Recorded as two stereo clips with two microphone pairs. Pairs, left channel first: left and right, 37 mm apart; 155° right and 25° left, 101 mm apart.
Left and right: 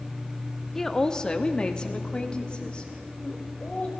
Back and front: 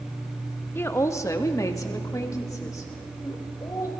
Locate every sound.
0.8 s a woman speaking: 165° left, 0.6 m; by 3.9 s 150° left, 3 m